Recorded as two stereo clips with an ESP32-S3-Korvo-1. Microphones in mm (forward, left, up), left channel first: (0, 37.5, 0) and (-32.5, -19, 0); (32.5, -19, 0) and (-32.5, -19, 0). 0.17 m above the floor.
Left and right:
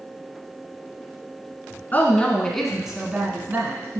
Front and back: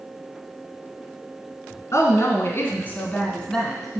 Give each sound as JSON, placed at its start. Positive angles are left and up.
{"t": 1.9, "sound": "a woman speaking", "azimuth_deg": 10, "distance_m": 2.0}